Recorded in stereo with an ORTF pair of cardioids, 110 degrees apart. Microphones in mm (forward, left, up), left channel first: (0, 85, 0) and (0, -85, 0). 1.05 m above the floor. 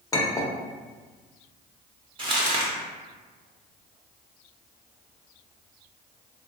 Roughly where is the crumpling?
Ahead right.